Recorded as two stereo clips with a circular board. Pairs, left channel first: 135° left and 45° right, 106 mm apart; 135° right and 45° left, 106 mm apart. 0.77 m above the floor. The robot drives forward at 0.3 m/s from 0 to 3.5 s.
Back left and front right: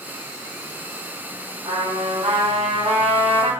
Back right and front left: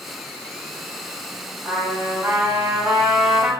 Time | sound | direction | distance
1.6 | a trumpet | 25° right | 1.5 m